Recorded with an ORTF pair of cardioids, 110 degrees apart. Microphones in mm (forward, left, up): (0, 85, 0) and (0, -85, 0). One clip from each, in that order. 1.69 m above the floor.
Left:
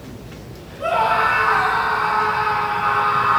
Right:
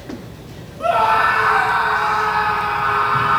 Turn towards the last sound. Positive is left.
turn(degrees=-30)